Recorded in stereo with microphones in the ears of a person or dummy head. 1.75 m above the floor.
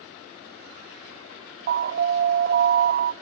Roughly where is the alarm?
Right.